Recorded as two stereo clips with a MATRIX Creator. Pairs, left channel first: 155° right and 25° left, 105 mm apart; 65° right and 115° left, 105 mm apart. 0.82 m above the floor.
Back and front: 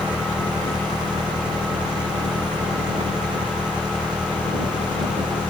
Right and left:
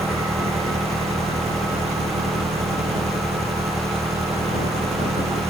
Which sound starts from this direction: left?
An engine running, at 0.0 s.